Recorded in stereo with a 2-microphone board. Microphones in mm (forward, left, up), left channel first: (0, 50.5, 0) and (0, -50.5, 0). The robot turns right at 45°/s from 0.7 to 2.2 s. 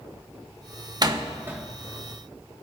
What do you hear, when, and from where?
1.0 s a door slam: 40° right (ahead or behind), 1.4 m; by 1.6 s 10° right (ahead or behind), 1.4 m